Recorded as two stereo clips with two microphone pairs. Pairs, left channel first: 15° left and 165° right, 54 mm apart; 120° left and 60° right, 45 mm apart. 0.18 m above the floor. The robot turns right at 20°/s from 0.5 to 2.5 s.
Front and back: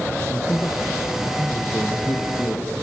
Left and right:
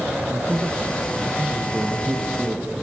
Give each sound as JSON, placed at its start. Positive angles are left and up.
{"t": 0.3, "sound": "a man speaking", "azimuth_deg": -50, "distance_m": 3.0}